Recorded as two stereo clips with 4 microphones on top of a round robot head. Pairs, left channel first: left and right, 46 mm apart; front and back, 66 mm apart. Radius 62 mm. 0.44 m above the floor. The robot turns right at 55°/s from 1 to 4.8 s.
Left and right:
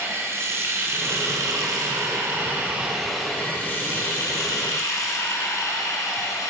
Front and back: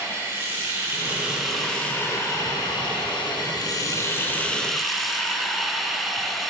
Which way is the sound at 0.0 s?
120° right.